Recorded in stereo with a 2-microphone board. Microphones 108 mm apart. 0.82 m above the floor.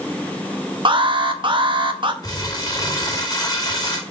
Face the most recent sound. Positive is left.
turn(degrees=35)  # may be behind; listen again after turning